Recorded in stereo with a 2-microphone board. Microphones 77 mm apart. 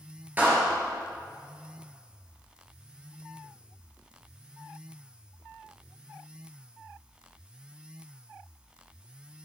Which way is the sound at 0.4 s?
25° right (ahead or behind).